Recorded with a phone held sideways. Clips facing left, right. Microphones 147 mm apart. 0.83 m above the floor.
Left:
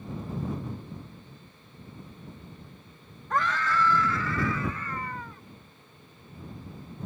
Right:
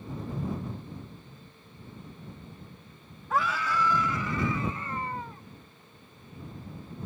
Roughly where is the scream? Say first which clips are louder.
Left 1 dB; centre.